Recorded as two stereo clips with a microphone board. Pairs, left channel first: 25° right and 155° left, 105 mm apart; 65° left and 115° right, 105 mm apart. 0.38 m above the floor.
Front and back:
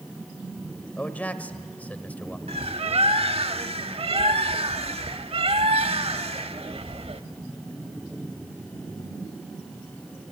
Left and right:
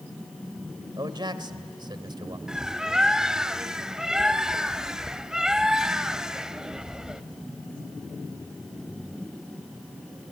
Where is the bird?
165° left, 0.8 m.